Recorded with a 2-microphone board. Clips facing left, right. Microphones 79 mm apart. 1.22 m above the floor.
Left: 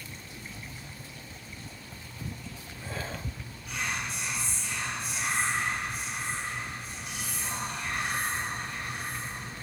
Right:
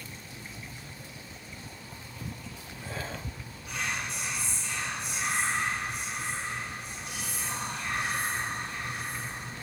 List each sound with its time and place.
3.7 s whispering: 50° right (ahead or behind), 2 m